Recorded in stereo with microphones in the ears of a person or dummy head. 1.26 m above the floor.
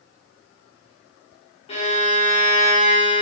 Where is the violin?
40° left (ahead or behind), 0.7 m.